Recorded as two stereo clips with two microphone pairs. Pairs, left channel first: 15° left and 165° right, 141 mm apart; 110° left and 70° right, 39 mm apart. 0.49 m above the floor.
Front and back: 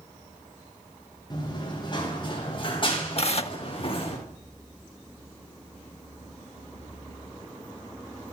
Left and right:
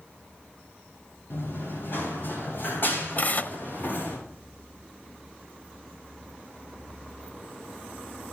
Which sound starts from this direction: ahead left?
Tearing paper, at 3.2 s.